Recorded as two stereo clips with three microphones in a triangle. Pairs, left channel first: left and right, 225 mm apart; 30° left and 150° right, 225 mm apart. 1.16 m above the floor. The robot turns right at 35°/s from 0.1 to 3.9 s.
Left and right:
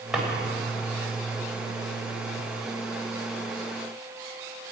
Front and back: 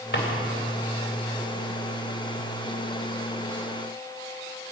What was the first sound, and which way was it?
A drawer, straight ahead.